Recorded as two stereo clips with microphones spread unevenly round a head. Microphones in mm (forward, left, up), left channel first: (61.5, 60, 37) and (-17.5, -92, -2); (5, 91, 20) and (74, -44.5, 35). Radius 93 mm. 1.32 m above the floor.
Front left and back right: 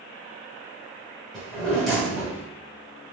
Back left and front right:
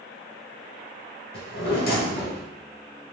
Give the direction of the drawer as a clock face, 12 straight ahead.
7 o'clock.